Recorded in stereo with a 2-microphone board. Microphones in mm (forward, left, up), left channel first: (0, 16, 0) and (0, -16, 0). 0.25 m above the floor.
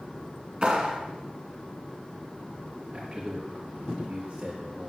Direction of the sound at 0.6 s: 30° right (ahead or behind).